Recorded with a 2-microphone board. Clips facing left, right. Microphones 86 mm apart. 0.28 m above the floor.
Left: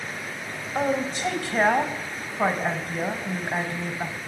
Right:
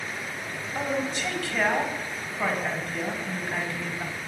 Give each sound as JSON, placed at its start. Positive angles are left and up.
{"t": 0.8, "sound": "a woman speaking", "side_deg": 35, "distance_m": 1.1}